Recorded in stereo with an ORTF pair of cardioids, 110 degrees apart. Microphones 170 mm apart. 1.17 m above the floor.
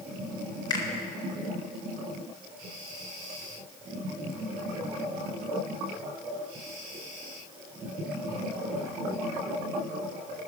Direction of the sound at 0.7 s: 25° left.